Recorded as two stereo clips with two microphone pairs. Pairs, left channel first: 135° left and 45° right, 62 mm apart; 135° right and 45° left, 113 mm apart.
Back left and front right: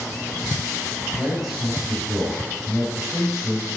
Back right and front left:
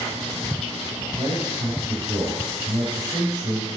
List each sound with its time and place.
1.2 s a man speaking: 45° left, 1.2 m